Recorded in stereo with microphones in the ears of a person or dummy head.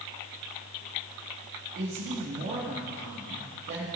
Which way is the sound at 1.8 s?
50° right (ahead or behind).